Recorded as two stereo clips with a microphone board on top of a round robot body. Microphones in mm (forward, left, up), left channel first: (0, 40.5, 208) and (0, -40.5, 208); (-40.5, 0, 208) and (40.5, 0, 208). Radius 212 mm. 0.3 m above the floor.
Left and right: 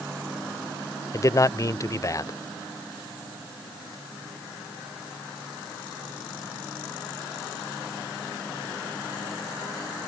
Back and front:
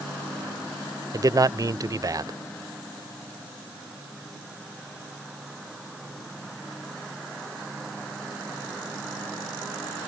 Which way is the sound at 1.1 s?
40° left.